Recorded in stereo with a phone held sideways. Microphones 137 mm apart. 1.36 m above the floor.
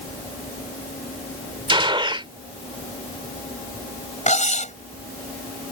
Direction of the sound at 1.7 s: 40° right (ahead or behind).